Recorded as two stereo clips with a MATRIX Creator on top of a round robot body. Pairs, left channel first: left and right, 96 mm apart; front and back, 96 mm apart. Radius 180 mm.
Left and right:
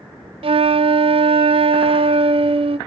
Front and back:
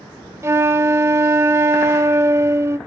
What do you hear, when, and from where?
0.4 s a flute: 115° right, 0.5 m